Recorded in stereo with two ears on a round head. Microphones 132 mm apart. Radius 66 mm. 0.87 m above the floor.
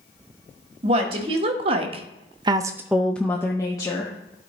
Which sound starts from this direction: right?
A woman speaking, at 0.8 s.